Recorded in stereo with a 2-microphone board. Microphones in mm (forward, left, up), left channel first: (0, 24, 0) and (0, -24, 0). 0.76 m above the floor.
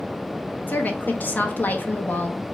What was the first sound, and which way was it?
A woman speaking, 40° left (ahead or behind).